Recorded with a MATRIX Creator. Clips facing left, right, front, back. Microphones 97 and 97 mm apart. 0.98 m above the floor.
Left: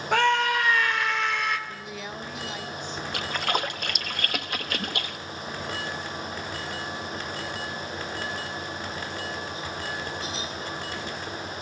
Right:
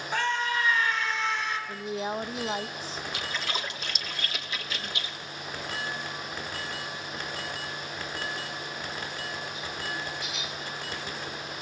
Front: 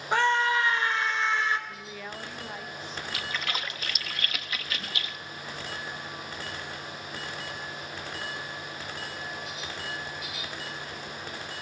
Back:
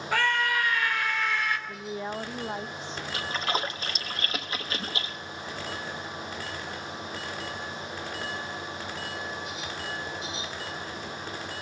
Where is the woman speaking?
130° right, 0.9 m.